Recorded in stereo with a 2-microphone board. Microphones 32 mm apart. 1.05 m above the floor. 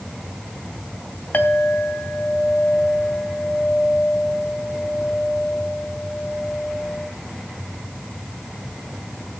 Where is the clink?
70° left (ahead or behind), 3 m.